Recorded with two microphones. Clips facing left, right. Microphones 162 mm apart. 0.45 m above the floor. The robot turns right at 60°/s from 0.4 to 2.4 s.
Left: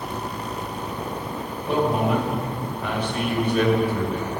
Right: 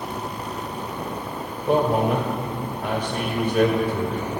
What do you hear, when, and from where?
1.7 s a man speaking: 115° right, 2.0 m; by 4.3 s 75° right, 2.0 m